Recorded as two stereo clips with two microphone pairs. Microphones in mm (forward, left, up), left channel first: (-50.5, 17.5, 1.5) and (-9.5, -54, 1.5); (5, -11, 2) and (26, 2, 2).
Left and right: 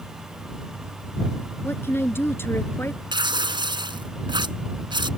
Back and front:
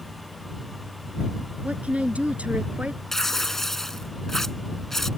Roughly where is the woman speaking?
Ahead left.